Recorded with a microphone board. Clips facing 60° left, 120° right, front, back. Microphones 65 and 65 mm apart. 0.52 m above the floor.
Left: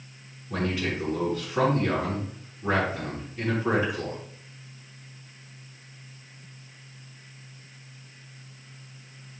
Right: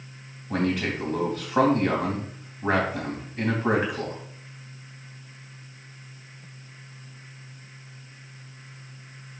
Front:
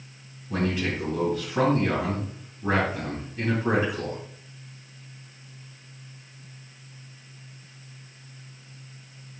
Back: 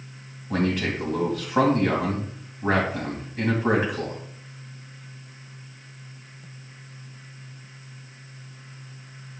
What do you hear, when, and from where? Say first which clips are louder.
0.5 s a man speaking: right 3 dB, back 2 dB; 145° right, 3 m